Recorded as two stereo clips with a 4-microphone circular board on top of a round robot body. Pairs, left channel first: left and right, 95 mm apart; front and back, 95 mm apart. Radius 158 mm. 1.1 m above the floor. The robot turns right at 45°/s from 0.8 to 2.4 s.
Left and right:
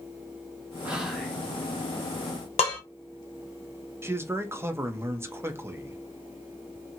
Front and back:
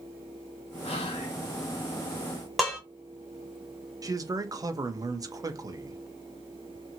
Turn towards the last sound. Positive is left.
turn(degrees=-145)